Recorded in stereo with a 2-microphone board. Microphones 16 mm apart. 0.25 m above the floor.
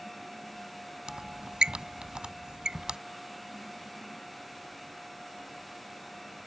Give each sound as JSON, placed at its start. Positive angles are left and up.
{"t": 1.1, "sound": "a squeak", "side_deg": -60}